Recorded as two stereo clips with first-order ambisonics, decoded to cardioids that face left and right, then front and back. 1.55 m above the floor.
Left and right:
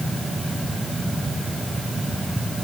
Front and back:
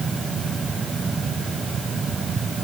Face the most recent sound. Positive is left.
No sound to turn to.